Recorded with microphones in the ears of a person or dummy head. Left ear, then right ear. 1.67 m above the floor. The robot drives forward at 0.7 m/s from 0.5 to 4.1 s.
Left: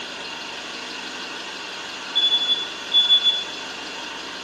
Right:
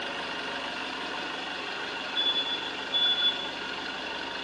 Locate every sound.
0.0 s an engine running: 35° right (ahead or behind), 2 m; by 4.5 s 15° right (ahead or behind), 4.5 m
2.1 s an alarm: 50° left (ahead or behind), 2 m; by 3.4 s 35° left (ahead or behind), 2.5 m